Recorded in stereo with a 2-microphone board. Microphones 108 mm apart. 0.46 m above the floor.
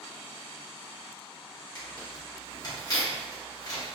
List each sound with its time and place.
1.8 s tearing paper: 35° left (ahead or behind), 1.0 m